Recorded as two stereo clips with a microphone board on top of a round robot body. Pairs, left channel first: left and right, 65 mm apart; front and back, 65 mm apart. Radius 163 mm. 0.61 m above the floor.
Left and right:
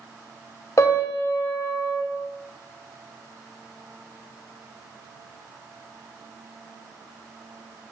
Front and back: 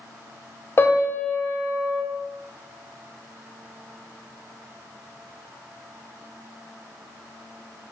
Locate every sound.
0.8 s a piano: 50° left, 1.8 m